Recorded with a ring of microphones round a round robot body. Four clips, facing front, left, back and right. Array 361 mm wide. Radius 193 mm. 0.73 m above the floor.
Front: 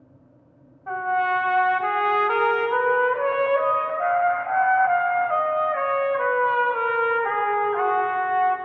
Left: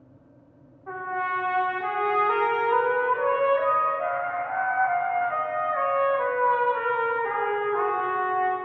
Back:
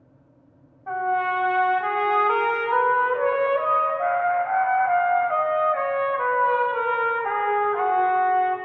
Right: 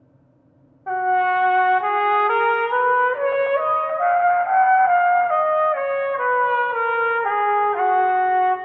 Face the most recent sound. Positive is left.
turn(degrees=-85)